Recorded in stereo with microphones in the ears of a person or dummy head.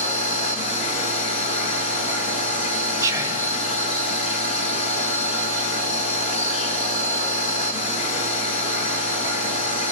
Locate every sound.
0.0 s a machine running: 40° left (ahead or behind), 1.5 m
3.0 s whispering: 15° right (ahead or behind), 1.2 m